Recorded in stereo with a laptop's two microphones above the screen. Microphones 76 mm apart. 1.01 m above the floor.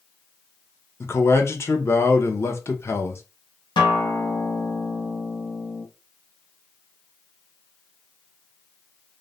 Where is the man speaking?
35° left (ahead or behind), 0.8 m.